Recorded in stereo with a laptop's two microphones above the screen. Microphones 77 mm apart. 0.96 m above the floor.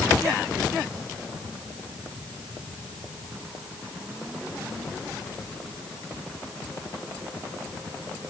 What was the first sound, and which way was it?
Only background noise.